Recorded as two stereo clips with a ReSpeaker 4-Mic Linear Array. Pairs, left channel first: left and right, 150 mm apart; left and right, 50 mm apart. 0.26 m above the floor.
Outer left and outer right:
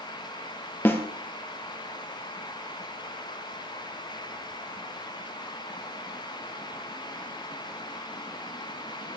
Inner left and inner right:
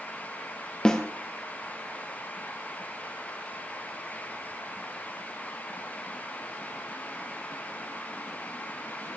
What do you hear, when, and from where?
0.8 s a snare drum: 15° left (ahead or behind), 2 m